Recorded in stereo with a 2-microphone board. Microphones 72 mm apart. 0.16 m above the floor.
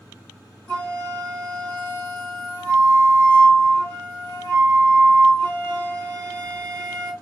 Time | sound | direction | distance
0.7 | a flute | 15° left (ahead or behind) | 2.5 m